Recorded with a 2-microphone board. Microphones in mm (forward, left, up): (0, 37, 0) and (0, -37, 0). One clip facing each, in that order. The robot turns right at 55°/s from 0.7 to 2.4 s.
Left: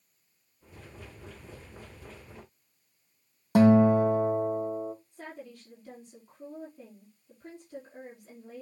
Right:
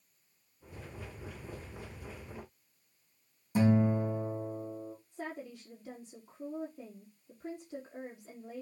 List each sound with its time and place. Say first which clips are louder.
3.5 s a guitar: left 8 dB; 80° left, 1.9 m
5.1 s a woman speaking: right 2 dB; 20° right (ahead or behind), 5 m